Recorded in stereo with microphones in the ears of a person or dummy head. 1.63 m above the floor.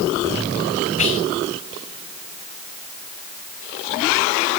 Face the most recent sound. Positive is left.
turn(degrees=35)  # may be behind; listen again after turning